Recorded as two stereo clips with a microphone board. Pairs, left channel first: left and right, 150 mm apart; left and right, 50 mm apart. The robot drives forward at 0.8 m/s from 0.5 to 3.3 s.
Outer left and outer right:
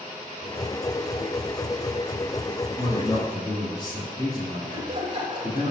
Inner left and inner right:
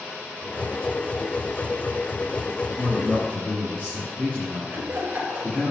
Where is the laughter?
35° right (ahead or behind), 6 m.